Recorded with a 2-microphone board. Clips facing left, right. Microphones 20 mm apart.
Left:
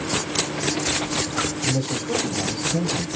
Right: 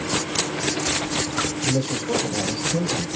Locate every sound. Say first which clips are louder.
1.6 s a man speaking: right 1 dB; 25° right (ahead or behind), 3.5 m